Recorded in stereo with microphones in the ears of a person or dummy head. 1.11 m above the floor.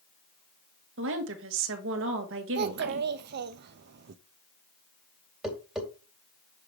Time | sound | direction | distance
1.0 | a woman speaking | 65° right (ahead or behind) | 1.4 m
2.5 | a child speaking | 60° right (ahead or behind) | 0.6 m
5.4 | tapping | centre (ahead or behind) | 3 m